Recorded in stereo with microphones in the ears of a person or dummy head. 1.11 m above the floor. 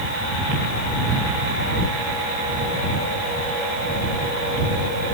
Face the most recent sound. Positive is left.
No sound to turn to.